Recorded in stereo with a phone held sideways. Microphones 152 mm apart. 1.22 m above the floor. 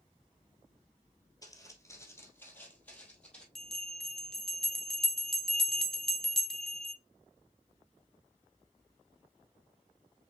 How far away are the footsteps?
About 1.8 m.